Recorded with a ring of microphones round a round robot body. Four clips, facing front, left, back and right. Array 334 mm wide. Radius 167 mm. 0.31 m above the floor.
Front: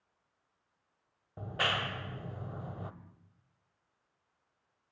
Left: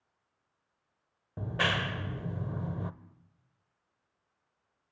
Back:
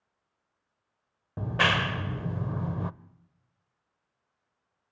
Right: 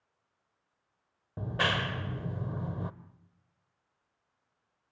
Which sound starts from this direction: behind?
A clap, at 1.4 s.